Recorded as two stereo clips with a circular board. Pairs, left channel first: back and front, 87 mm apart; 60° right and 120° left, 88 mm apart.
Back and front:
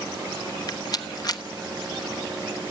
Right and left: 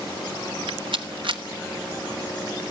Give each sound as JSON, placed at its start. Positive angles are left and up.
{"t": 0.7, "sound": "a rattle", "azimuth_deg": 140, "distance_m": 1.0}